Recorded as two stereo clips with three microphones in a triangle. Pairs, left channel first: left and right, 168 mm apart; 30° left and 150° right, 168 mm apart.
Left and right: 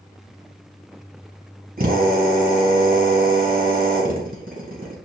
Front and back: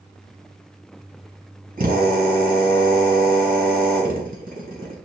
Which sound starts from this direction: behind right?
A drill, at 1.8 s.